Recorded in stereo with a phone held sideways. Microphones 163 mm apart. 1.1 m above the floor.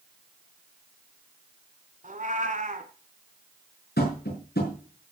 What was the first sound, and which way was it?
A cat meowing, 50° right (ahead or behind).